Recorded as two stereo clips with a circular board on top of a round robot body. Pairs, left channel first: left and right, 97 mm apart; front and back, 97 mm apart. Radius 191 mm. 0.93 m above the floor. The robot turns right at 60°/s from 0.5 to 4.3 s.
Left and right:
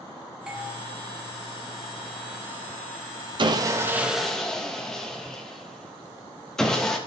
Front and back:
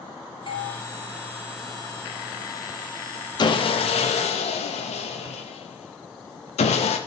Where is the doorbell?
10° right, 2 m; by 0.7 s 5° left, 2 m.